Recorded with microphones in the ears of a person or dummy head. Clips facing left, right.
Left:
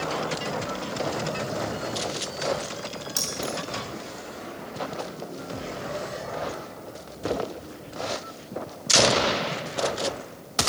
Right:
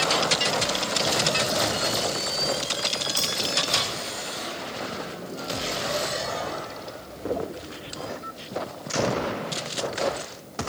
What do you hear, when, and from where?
3.2 s keys jangling: 35° left (ahead or behind), 4 m